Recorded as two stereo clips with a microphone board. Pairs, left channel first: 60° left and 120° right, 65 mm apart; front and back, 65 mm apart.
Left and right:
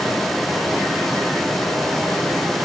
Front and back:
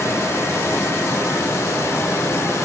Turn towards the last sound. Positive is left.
No sound to turn to.